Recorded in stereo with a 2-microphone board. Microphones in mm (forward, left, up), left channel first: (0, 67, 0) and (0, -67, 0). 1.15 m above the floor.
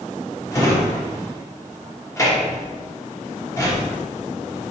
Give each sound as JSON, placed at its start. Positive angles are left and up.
{"t": 0.5, "sound": "a drawer", "side_deg": 25, "distance_m": 1.0}